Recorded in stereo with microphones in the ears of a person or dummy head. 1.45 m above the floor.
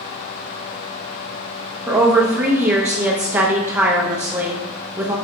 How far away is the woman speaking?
About 0.7 m.